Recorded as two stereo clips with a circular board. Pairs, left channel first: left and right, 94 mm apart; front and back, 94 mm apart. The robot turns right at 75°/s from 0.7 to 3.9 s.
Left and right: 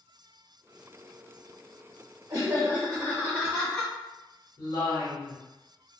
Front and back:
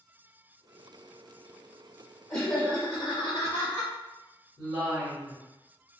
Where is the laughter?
55° right, 0.6 m; by 3.9 s 65° left, 0.6 m.